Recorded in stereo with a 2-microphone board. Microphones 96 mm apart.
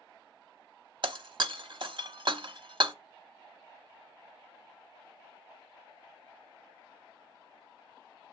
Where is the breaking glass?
55° right (ahead or behind), 0.8 m.